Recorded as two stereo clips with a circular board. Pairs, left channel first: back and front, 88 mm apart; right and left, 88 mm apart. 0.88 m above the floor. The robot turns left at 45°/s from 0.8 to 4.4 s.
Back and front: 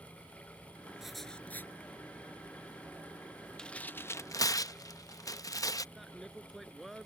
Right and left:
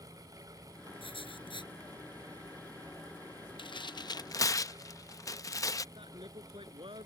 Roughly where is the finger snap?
No finger snap in this recording.